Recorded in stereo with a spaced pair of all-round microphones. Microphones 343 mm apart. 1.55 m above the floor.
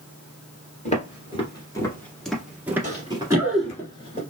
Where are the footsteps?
20° left (ahead or behind), 1.7 m; by 3.8 s 20° right (ahead or behind), 1.6 m.